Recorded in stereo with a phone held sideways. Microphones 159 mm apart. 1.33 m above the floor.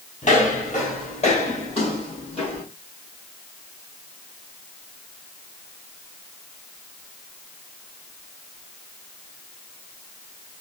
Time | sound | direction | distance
0.2 | footsteps | 50° left (ahead or behind) | 1.9 m